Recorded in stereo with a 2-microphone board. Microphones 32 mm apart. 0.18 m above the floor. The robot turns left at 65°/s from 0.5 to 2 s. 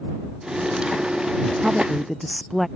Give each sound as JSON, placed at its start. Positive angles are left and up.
{"t": 1.6, "sound": "a woman speaking", "side_deg": -25}